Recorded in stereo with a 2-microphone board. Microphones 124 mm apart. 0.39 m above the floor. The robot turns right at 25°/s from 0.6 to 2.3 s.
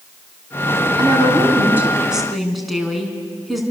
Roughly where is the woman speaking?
Ahead right.